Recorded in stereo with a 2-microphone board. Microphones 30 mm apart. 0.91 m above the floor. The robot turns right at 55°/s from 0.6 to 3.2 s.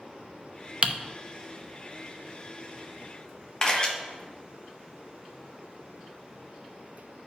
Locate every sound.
0.8 s typing on a keyboard: 40° right (ahead or behind), 0.6 m; by 0.9 s 35° right (ahead or behind), 0.6 m
3.6 s a camera shutter: 25° left (ahead or behind), 1.2 m